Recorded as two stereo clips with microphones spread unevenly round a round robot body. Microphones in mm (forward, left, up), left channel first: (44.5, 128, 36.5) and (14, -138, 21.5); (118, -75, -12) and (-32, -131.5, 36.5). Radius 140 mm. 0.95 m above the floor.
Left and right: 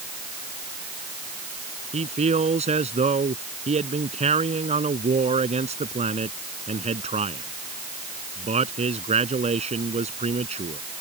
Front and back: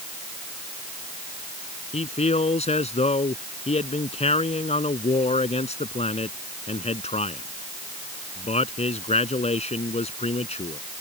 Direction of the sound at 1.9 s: 30° right.